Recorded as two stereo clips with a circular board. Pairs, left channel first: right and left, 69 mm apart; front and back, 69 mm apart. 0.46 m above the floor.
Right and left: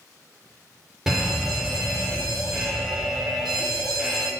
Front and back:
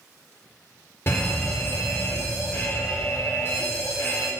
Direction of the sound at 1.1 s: 15° left.